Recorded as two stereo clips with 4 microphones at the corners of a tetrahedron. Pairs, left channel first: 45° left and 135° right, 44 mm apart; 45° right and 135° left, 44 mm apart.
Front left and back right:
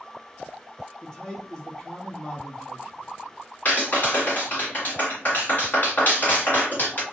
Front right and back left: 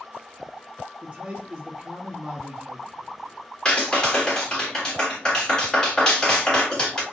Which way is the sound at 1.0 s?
105° left.